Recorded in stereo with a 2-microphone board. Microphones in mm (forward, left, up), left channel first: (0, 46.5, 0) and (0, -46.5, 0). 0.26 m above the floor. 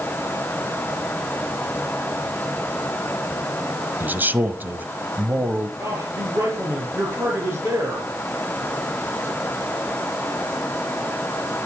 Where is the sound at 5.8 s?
30° right (ahead or behind), 5 m.